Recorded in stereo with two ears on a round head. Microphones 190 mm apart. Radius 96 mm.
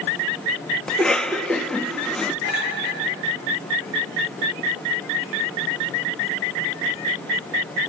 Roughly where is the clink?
Left.